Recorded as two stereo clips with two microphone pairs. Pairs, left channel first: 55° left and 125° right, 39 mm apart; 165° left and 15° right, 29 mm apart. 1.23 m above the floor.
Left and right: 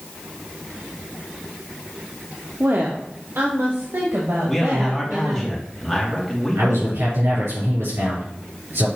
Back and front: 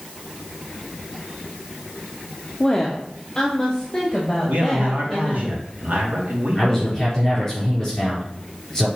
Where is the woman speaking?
120° right, 0.7 m; by 5.5 s 130° right, 2 m.